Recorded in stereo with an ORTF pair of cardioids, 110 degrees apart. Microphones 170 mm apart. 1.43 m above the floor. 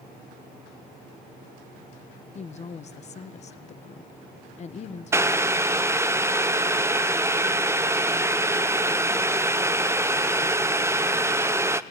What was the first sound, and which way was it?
A woman speaking, 40° left.